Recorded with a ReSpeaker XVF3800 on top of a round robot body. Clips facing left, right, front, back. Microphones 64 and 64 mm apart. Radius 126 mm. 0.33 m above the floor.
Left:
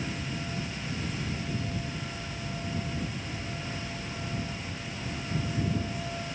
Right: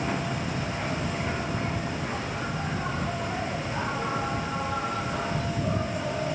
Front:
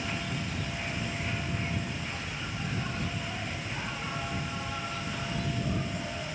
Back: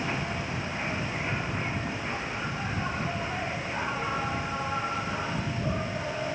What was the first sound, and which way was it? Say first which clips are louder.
An insect: right 6 dB, back 3 dB; 115° right.